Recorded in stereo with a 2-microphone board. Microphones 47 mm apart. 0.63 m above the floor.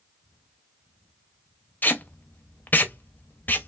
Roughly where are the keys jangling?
I don't hear keys jangling.